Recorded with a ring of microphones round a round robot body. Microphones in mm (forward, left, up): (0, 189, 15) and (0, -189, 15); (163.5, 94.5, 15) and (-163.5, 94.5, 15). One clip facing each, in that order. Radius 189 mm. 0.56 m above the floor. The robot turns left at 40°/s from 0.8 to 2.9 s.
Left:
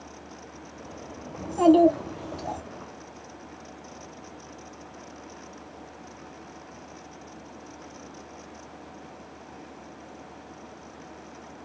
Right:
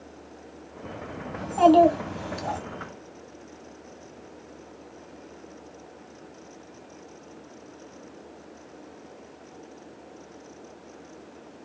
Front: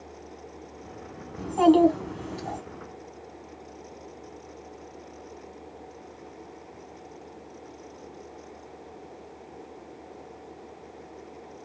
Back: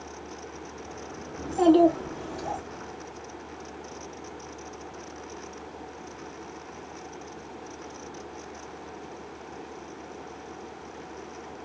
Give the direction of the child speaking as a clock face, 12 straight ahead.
1 o'clock.